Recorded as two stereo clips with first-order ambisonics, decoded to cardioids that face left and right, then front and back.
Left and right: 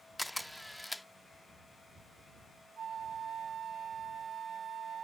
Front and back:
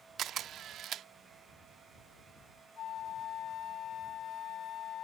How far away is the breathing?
I don't hear breathing.